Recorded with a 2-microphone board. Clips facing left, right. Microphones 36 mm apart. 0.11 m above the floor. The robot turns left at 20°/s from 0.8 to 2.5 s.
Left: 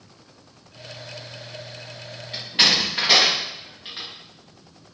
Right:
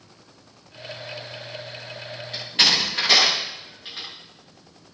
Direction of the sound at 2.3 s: 5° left (ahead or behind).